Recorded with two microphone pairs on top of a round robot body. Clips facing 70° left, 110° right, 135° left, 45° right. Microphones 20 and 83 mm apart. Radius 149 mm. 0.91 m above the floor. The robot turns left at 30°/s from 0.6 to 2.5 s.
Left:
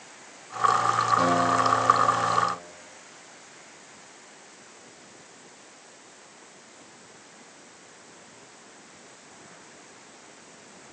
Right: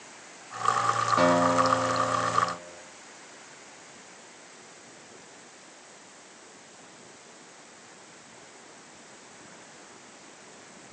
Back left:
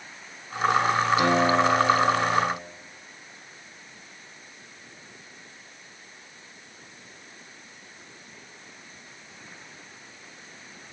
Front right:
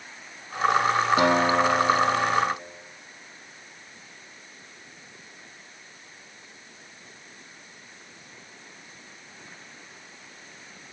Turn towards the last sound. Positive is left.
turn(degrees=-100)